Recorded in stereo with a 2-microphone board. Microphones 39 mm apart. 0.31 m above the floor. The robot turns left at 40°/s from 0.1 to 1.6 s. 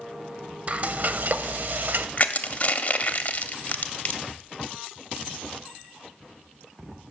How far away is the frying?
About 0.5 m.